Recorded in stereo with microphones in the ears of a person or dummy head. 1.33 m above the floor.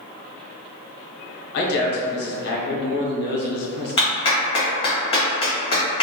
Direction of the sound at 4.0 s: 25° left (ahead or behind).